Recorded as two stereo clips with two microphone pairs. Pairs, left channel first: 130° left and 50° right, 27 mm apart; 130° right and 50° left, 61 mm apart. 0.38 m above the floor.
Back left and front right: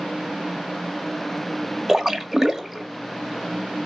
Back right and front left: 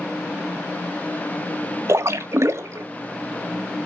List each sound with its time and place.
1.9 s a splash: 20° left, 1.1 m